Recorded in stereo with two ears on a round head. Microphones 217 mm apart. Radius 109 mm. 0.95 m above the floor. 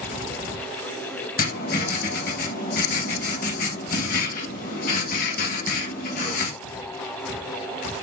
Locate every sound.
1.4 s writing: 35° left (ahead or behind), 1.3 m